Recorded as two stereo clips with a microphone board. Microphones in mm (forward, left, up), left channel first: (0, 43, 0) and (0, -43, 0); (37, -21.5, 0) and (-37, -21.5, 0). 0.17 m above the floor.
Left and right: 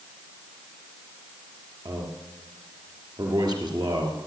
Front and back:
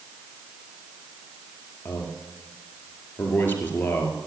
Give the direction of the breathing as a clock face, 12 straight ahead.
No breathing in this recording.